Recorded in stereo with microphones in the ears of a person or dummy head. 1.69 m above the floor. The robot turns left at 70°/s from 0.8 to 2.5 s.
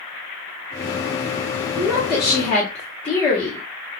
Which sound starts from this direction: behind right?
A woman speaking, at 1.8 s.